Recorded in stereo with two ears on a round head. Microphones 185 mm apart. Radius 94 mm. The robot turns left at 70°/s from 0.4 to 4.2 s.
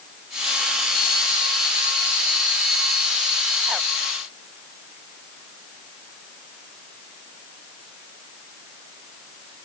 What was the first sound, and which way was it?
Only background noise.